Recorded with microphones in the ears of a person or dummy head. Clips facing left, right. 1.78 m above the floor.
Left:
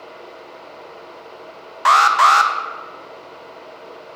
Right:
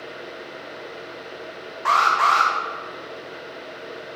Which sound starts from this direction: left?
An alarm, at 1.9 s.